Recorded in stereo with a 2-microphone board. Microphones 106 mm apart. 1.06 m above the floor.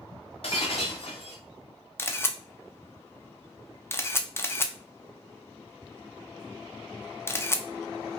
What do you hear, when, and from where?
0.4 s breaking glass: 60° left (ahead or behind), 1.4 m
2.0 s a camera shutter: 20° left (ahead or behind), 0.6 m